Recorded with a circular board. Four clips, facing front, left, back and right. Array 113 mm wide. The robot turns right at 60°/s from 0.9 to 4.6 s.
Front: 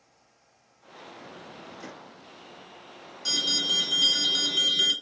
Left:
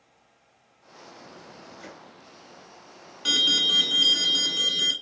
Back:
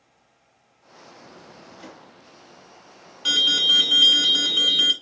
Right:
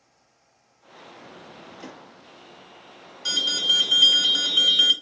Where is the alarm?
145° left, 1.5 m; by 4.9 s 135° right, 1.5 m.